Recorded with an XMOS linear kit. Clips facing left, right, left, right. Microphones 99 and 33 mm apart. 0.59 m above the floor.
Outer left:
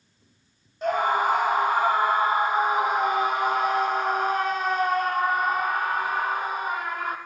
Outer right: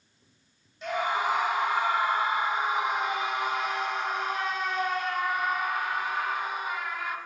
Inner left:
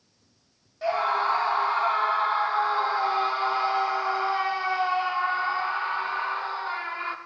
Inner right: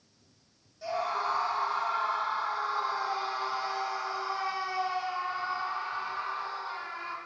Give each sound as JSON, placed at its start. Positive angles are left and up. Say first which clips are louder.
{"t": 0.8, "sound": "a scream", "louder": "outer left 6 dB, inner left 7 dB", "side_deg": 45, "distance_m": 1.1}